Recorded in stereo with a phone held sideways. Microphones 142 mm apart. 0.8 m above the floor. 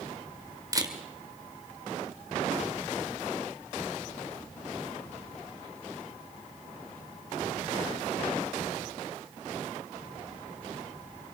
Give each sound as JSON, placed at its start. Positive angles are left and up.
{"t": 0.7, "sound": "a camera shutter", "side_deg": -25, "distance_m": 2.0}